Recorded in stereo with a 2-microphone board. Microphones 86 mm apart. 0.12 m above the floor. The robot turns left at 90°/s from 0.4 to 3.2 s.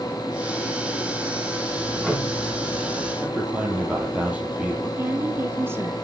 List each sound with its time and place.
1.7 s ticking: 155° right, 4 m; by 3.1 s 80° left, 4 m
3.2 s a man speaking: 15° right (ahead or behind), 3.5 m
5.0 s a woman speaking: 30° right (ahead or behind), 1.6 m